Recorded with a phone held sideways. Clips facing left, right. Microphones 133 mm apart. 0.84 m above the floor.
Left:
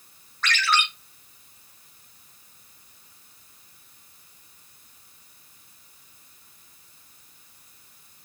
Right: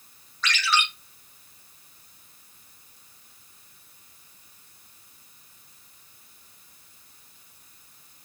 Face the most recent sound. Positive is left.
turn(degrees=60)  # may be behind; listen again after turning